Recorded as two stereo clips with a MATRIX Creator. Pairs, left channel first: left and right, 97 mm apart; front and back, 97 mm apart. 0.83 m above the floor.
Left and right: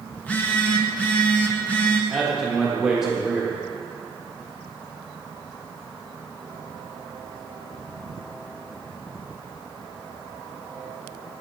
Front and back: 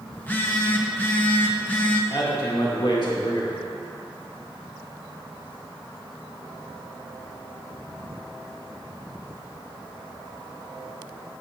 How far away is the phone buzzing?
About 0.7 m.